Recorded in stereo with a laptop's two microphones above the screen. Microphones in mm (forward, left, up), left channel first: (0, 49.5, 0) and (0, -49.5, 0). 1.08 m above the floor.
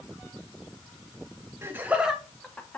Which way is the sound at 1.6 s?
25° right (ahead or behind).